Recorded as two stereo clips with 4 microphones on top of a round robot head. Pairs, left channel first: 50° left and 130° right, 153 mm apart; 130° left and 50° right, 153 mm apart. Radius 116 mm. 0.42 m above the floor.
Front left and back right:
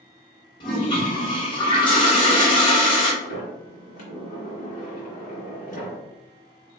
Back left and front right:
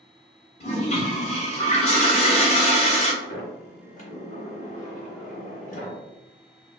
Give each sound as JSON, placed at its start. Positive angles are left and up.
{"t": 0.6, "sound": "a toilet flushing", "azimuth_deg": 100, "distance_m": 1.1}
{"t": 3.2, "sound": "a sliding door", "azimuth_deg": 90, "distance_m": 0.9}